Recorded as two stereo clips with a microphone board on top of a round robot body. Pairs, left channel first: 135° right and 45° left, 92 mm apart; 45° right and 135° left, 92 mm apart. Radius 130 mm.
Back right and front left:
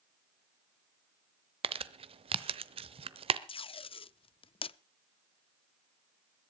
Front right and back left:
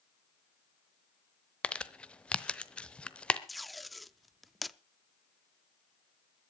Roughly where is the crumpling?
Ahead left.